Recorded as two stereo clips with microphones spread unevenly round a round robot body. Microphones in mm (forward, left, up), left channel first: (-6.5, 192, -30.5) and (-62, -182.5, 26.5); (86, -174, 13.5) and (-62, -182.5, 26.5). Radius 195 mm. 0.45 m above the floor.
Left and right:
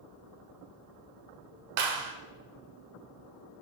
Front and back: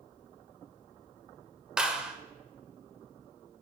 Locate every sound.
1.8 s a clap: 90° right, 1.1 m